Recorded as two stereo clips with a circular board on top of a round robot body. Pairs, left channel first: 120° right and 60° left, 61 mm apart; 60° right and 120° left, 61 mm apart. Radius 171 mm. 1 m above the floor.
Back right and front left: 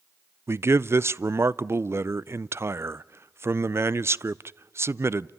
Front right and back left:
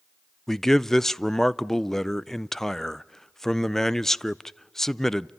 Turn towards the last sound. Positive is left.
turn(degrees=25)